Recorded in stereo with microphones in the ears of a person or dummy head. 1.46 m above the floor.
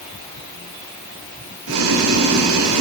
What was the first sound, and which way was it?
Boiling, 75° right (ahead or behind).